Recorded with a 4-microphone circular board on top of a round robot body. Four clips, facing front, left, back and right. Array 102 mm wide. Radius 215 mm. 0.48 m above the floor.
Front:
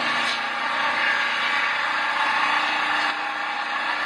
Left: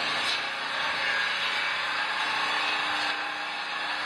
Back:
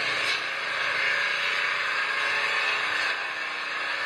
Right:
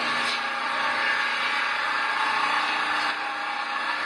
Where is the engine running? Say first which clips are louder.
Right 4 dB, front 5 dB; 10° right, 3 m.